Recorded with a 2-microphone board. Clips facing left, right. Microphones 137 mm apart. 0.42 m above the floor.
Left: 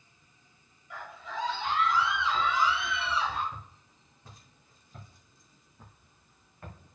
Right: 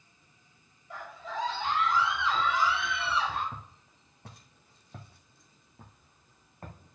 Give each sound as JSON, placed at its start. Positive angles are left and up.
{"t": 0.9, "sound": "a scream", "side_deg": -35, "distance_m": 2.0}
{"t": 3.5, "sound": "footsteps", "side_deg": -65, "distance_m": 1.7}